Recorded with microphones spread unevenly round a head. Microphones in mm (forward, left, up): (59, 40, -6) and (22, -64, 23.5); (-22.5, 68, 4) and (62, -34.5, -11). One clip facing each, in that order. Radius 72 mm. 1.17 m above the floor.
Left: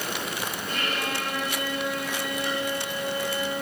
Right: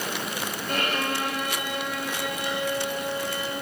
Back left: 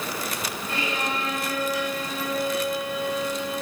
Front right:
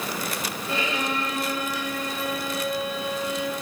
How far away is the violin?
About 6 m.